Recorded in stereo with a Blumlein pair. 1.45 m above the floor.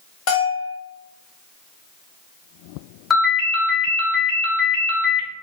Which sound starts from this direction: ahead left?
A bell, at 0.3 s.